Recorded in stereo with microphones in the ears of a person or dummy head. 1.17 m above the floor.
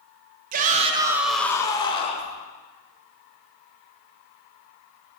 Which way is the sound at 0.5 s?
50° right (ahead or behind).